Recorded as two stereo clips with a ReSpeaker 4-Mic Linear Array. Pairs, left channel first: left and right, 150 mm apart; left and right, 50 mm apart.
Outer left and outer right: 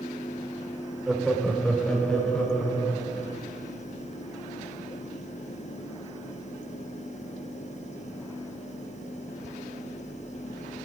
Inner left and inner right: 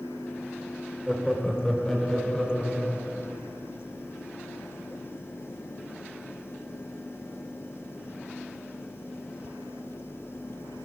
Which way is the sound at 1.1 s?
5° right (ahead or behind).